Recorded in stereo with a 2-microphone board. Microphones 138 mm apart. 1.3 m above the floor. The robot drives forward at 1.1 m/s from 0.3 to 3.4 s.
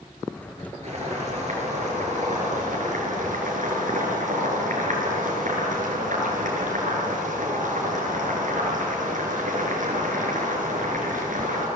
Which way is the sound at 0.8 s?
50° right (ahead or behind).